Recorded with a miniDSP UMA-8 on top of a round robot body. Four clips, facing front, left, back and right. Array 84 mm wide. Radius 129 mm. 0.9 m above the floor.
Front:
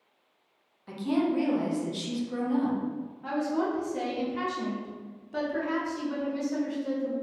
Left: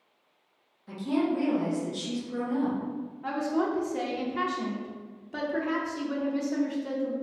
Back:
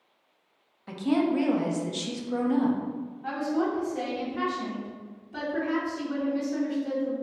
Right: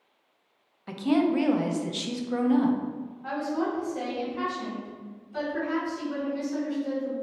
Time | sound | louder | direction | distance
0.9 | a woman speaking | right 4 dB, back 2 dB | 105° right | 0.6 m
3.2 | a woman speaking | left 1 dB, back 1 dB | 65° left | 0.7 m